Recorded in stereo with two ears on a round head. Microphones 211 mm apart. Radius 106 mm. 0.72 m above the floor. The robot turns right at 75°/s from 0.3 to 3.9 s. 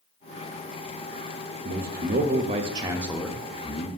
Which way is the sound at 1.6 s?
115° right.